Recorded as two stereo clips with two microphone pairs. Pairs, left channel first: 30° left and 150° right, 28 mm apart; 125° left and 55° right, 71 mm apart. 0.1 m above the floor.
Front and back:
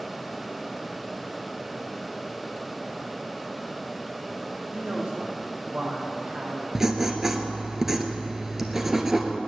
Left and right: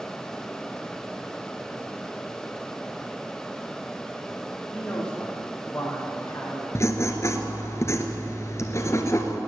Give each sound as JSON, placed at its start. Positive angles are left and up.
{"t": 4.7, "sound": "a man speaking", "azimuth_deg": -160, "distance_m": 4.5}
{"t": 6.8, "sound": "writing", "azimuth_deg": 140, "distance_m": 1.3}